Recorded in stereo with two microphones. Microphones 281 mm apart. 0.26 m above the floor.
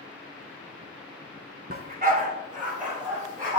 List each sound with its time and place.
1.7 s a dog barking: 30° right (ahead or behind), 0.9 m; by 3.6 s 25° right (ahead or behind), 4 m